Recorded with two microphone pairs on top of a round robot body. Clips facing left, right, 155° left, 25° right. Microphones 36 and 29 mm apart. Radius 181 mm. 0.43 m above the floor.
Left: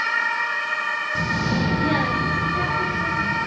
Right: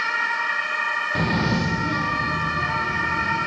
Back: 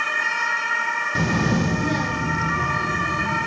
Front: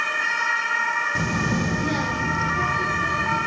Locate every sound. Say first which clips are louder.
1.1 s a child speaking: right 1 dB, back 2 dB; 140° right, 0.7 m; by 3.5 s 55° left, 2 m